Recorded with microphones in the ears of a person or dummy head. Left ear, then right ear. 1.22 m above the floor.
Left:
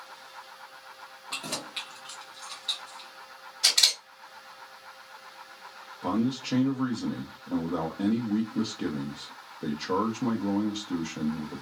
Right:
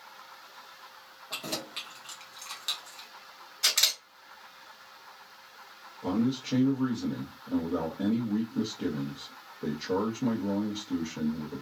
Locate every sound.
1.3 s keys jangling: 15° left (ahead or behind), 1.0 m; by 3.1 s 70° right (ahead or behind), 0.8 m
3.6 s a camera shutter: 10° right (ahead or behind), 1.6 m
6.0 s a man speaking: 30° left (ahead or behind), 0.7 m